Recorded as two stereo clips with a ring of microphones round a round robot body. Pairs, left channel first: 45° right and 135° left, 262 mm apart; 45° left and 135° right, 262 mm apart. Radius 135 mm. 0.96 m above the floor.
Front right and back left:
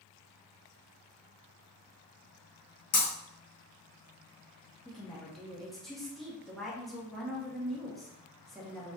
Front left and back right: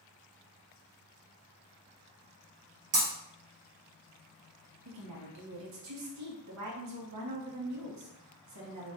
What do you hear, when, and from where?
2.9 s breaking glass: 90° right, 1.7 m
4.8 s a woman speaking: 135° right, 1.2 m